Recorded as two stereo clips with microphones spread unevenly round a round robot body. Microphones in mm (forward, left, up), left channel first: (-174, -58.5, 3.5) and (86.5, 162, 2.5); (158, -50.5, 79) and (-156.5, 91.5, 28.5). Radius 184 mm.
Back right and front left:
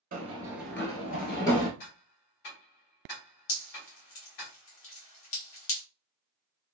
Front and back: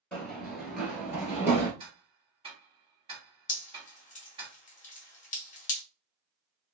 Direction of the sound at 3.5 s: 95° right.